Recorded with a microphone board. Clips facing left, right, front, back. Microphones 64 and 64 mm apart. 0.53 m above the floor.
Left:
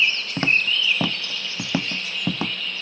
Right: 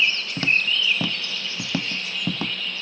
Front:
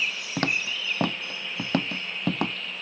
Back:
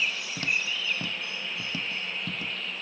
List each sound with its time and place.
0.4 s footsteps: 35° left; by 2.5 s 15° left